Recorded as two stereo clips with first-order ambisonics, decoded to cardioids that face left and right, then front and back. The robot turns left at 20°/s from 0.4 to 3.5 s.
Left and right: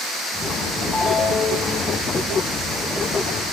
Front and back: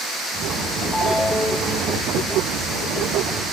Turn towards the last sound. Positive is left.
turn(degrees=30)